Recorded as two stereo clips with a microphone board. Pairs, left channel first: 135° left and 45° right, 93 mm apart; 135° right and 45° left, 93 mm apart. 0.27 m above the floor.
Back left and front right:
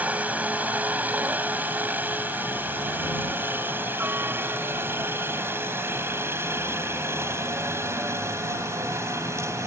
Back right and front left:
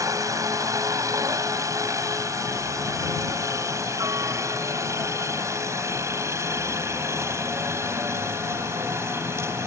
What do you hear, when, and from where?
0.0 s a helicopter: 20° left; by 9.7 s straight ahead